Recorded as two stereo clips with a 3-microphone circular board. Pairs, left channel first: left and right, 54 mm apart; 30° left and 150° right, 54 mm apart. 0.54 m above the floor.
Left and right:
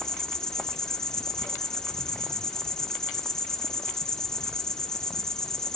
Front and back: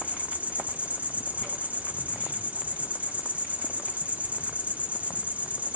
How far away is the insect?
About 1.1 m.